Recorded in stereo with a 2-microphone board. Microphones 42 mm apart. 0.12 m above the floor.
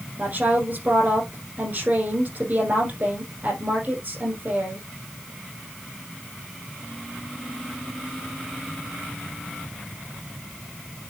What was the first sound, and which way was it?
A woman speaking, 45° right (ahead or behind).